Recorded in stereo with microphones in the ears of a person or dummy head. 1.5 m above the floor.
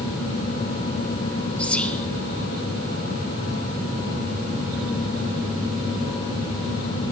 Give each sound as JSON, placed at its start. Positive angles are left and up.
{"t": 1.6, "sound": "whispering", "side_deg": 0, "distance_m": 0.8}